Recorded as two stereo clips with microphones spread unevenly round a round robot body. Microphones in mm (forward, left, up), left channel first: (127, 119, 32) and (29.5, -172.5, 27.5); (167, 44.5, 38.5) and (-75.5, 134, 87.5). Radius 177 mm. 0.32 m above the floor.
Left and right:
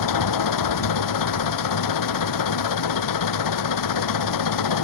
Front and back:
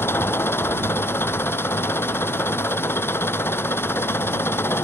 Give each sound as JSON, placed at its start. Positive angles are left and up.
{"t": 0.0, "sound": "an engine running", "azimuth_deg": 60}